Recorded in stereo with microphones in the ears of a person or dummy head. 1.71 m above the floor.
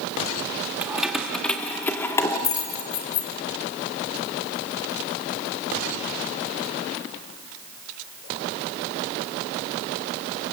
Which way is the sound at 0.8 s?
10° right (ahead or behind).